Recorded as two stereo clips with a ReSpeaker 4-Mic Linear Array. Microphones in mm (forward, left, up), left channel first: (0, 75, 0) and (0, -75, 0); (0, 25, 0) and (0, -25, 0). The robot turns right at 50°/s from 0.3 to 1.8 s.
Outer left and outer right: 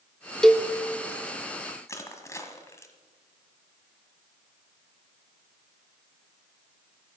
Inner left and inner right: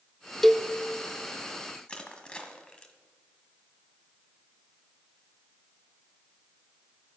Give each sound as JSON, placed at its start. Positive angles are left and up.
{"t": 0.4, "sound": "a cowbell", "side_deg": 5, "distance_m": 0.7}
{"t": 1.9, "sound": "crushing", "side_deg": 20, "distance_m": 1.6}